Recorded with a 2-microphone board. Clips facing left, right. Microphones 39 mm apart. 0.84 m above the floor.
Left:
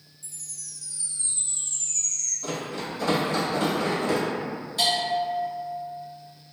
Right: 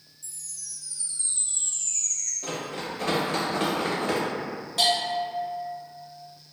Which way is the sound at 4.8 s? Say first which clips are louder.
Even; 70° right (ahead or behind).